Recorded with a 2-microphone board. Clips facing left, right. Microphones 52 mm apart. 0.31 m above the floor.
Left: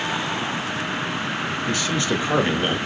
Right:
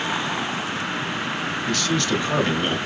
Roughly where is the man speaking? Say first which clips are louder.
Right 1 dB; centre.